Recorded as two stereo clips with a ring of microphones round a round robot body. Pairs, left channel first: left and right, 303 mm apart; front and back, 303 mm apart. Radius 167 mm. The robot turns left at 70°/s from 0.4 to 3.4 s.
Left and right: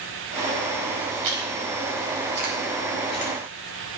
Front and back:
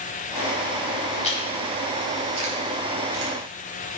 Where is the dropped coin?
No dropped coin in this recording.